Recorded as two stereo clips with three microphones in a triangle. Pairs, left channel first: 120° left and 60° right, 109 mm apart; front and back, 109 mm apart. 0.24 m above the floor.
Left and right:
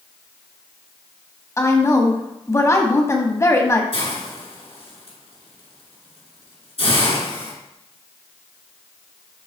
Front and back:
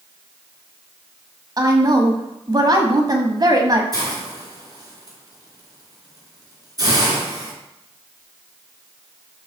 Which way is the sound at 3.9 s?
130° left.